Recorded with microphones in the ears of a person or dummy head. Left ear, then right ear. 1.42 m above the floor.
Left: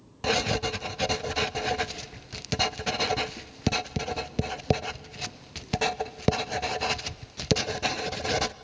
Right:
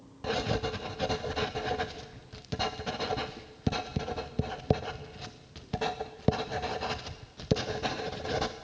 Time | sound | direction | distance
0.2 | writing | 50° left (ahead or behind) | 0.6 m